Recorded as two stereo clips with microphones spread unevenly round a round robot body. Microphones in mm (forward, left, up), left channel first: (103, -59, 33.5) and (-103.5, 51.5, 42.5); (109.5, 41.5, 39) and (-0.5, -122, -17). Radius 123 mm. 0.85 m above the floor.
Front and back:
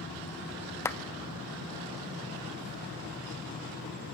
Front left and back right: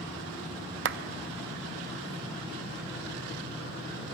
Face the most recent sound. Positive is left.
turn(degrees=-110)